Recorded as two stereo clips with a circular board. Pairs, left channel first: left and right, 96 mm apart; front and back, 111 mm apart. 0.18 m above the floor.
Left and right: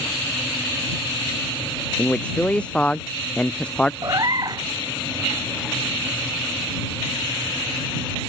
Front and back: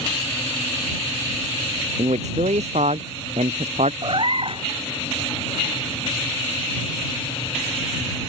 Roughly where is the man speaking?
Behind.